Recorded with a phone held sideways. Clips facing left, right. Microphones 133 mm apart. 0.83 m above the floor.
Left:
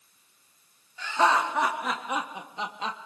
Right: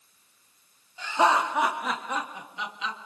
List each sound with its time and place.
1.0 s laughter: 20° right (ahead or behind), 2.5 m; by 3.0 s 45° left (ahead or behind), 1.4 m